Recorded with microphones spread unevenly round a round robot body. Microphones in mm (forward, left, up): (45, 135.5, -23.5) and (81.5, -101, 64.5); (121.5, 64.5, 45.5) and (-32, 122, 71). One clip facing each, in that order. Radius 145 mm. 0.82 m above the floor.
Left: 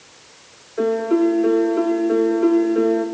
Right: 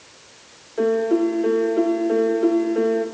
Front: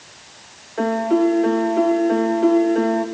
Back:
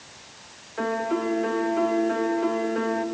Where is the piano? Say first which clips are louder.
Left 1 dB, front 8 dB; 20° left, 2 m.